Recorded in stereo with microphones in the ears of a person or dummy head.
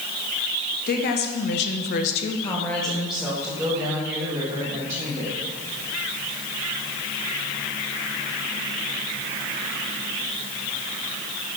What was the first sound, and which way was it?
A woman speaking, 50° left (ahead or behind).